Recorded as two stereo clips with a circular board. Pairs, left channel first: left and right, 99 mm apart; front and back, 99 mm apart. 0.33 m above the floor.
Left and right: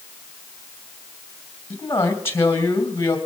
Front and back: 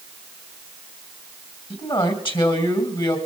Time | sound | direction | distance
1.7 | a man speaking | 25° left | 2.5 m